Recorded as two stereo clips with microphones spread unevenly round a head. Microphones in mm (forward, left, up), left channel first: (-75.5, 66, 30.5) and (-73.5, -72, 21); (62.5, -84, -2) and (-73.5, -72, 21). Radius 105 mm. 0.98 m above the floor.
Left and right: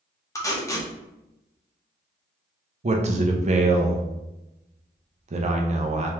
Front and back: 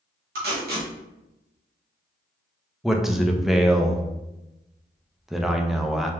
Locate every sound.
0.3 s tape being pulled: 160° left, 1.2 m
2.8 s a man speaking: 90° right, 0.7 m